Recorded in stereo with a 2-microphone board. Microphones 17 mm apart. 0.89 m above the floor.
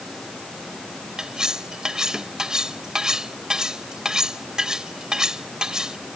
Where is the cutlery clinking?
40° right (ahead or behind).